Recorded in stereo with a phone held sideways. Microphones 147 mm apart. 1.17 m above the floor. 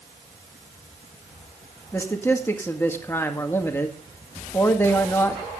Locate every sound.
1.9 s a man speaking: 15° left (ahead or behind), 1.8 m